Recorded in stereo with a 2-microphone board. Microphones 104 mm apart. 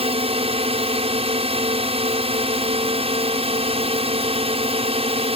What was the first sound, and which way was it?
A drone, 70° right (ahead or behind).